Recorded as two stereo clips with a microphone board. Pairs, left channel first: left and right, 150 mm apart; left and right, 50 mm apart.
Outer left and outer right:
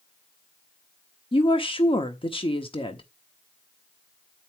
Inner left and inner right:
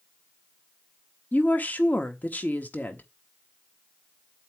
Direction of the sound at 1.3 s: 35° left (ahead or behind).